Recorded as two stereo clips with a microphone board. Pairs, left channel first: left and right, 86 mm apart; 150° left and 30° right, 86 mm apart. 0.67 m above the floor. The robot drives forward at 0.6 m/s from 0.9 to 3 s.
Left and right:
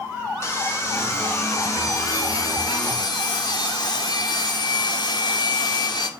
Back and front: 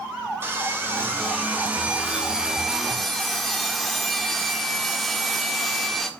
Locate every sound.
0.4 s sawing: 30° left, 2.5 m; by 6.1 s 60° left, 1.6 m